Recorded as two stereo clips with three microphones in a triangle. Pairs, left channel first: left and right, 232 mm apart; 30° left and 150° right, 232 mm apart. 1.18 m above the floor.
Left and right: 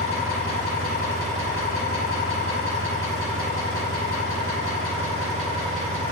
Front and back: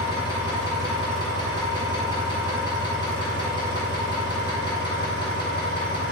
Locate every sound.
0.0 s an engine running: 100° left, 1.0 m